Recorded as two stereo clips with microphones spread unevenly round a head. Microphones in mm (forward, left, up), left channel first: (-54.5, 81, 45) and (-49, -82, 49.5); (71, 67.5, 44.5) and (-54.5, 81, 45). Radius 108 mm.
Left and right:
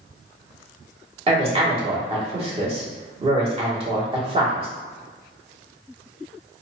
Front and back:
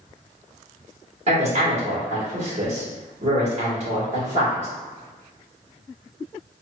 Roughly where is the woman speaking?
Behind right.